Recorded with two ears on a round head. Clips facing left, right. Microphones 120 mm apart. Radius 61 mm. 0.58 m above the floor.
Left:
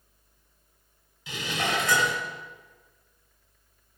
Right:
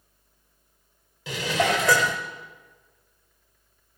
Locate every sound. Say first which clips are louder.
1.3 s dishes clattering: right 6 dB; 60° right (ahead or behind), 1.5 m